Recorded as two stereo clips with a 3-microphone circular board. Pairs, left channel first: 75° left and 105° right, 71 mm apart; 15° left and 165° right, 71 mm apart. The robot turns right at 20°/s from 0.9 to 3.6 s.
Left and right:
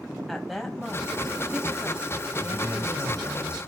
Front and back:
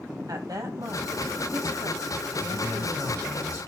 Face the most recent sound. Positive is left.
turn(degrees=-105)